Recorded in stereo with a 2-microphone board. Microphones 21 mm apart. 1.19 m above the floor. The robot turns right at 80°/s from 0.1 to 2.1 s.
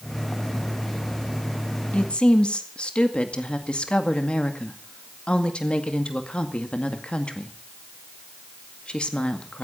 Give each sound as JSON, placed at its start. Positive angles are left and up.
{"t": 1.9, "sound": "a woman speaking", "side_deg": 65, "distance_m": 2.0}